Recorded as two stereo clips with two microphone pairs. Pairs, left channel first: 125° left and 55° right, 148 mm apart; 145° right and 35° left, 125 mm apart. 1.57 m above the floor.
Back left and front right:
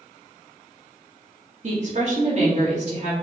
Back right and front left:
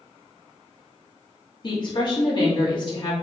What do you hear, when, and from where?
1.6 s a woman speaking: 90° right, 2.5 m